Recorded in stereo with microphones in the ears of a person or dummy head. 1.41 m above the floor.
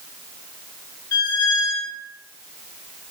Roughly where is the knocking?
I don't hear knocking.